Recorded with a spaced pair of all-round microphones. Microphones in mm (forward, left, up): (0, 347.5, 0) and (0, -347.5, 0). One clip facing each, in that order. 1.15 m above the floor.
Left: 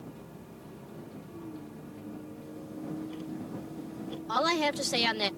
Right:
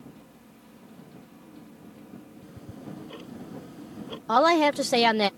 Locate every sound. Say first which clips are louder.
0.0 s a vehicle: left 2 dB; 60° left (ahead or behind)
2.4 s ticking: left 3 dB; 70° right (ahead or behind)
4.3 s a woman speaking: right 9 dB; 75° right (ahead or behind)